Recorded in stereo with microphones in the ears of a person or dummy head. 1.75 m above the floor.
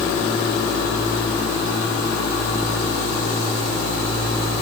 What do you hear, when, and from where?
Only background noise.